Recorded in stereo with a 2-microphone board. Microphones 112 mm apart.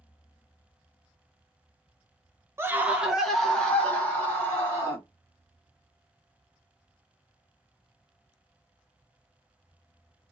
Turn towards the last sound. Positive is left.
turn(degrees=25)  # may be behind; listen again after turning